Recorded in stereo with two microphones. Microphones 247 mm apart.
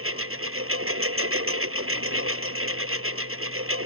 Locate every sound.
0.0 s a lawn mower: 60° right (ahead or behind)